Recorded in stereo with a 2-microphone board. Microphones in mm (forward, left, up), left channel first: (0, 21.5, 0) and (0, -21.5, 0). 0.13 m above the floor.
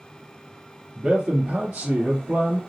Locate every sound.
0.9 s a man speaking: 40° right (ahead or behind), 1.9 m